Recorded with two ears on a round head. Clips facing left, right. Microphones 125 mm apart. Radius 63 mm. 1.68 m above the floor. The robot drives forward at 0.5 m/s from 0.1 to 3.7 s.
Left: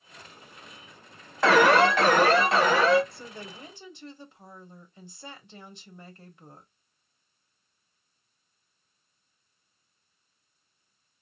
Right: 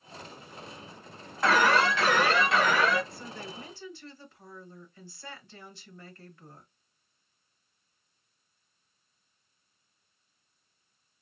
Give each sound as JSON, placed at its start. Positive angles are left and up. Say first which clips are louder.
{"t": 1.4, "sound": "an alarm", "louder": "left 5 dB", "side_deg": 60, "distance_m": 0.5}
{"t": 3.1, "sound": "a woman speaking", "louder": "right 1 dB", "side_deg": 25, "distance_m": 0.8}